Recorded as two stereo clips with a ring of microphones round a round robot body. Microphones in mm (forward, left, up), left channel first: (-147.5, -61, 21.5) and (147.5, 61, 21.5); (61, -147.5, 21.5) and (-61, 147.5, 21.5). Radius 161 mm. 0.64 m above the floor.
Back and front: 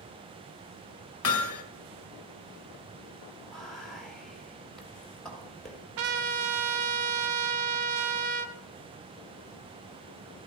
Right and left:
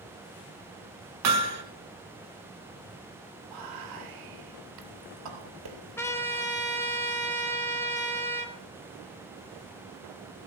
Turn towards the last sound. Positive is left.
turn(degrees=15)